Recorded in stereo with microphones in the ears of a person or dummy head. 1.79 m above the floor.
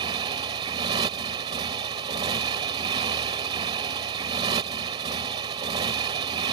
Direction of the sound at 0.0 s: 25° right (ahead or behind).